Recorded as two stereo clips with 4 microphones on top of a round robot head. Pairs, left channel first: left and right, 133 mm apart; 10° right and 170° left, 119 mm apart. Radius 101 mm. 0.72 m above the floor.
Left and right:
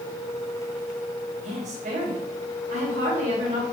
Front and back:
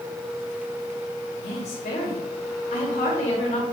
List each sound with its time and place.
1.4 s a woman speaking: 50° right, 2.5 m